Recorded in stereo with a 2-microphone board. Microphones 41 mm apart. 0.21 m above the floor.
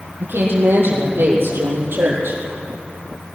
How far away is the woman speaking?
About 6.5 m.